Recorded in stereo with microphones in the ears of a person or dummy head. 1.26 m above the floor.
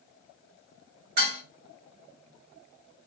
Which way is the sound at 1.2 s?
65° right (ahead or behind).